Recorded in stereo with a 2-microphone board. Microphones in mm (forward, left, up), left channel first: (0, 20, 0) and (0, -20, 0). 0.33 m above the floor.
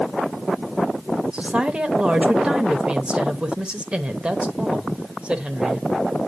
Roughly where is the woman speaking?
Right.